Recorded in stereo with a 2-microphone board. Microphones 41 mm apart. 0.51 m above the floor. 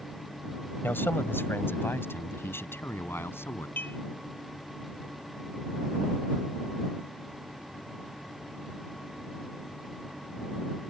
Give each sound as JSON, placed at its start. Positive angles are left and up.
{"t": 0.8, "sound": "a man speaking", "side_deg": 60}
{"t": 3.8, "sound": "dishes clattering", "side_deg": 55}